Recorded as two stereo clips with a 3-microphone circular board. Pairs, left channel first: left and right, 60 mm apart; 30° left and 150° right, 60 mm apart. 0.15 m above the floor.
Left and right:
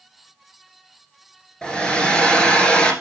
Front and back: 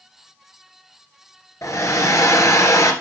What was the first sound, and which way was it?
A hair dryer, 15° left.